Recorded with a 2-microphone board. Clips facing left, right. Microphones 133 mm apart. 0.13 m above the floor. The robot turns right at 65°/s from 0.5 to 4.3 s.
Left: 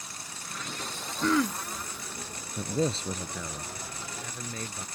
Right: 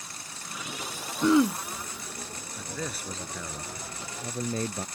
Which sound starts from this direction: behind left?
A man speaking, at 2.6 s.